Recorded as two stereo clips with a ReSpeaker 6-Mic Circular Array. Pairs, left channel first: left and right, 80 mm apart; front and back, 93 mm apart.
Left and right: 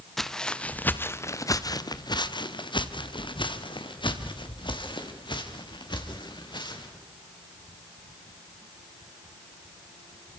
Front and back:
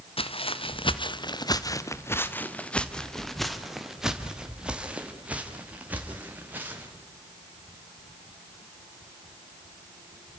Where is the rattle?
No rattle in this recording.